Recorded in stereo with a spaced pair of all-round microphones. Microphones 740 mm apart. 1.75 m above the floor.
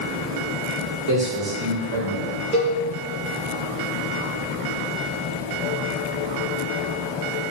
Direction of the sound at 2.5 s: 45° right (ahead or behind).